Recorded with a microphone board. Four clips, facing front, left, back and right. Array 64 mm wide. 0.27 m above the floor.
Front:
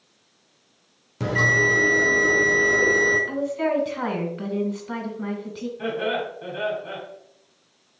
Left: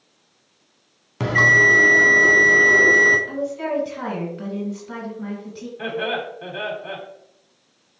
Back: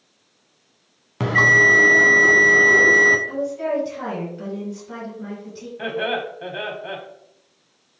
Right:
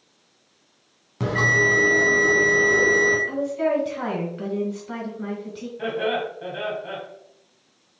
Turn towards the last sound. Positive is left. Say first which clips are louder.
# right 1 dB, back 2 dB
turn(degrees=165)